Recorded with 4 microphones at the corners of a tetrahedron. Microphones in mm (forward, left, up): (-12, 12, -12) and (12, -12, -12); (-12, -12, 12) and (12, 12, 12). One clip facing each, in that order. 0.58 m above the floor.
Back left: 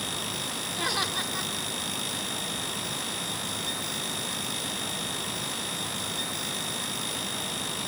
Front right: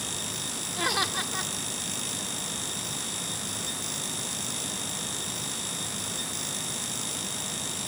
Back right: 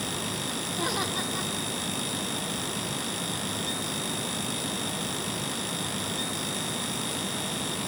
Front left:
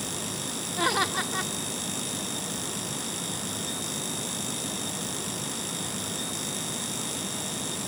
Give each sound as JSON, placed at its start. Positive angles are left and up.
{"t": 0.8, "sound": "laughter", "azimuth_deg": 30, "distance_m": 1.4}